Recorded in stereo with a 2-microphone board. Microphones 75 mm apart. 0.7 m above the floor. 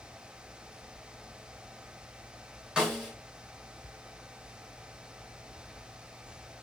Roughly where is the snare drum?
Centre.